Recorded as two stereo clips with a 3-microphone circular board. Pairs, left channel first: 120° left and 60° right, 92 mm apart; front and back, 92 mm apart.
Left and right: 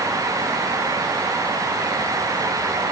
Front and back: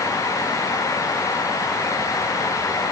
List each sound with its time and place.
Only background noise.